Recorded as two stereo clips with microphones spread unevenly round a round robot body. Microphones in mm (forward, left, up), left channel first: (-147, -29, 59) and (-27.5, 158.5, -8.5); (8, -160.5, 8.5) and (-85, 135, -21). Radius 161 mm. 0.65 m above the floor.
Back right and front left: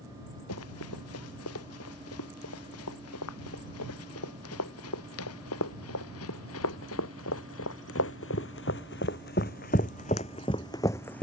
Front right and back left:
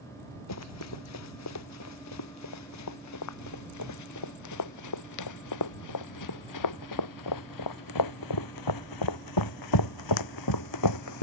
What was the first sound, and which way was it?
Running footsteps, 105° right.